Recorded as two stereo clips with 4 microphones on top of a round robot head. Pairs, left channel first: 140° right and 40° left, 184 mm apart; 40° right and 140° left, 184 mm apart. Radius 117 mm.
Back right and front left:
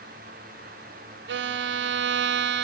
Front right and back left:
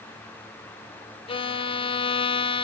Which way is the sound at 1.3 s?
25° left.